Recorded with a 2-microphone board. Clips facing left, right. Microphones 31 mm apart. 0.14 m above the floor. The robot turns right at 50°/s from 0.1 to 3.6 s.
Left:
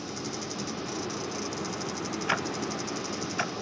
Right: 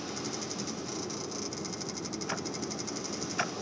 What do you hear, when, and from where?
0.0 s a vehicle: 5° left (ahead or behind); by 3.6 s 15° left (ahead or behind)
2.3 s ticking: 60° left (ahead or behind); by 3.5 s 5° right (ahead or behind)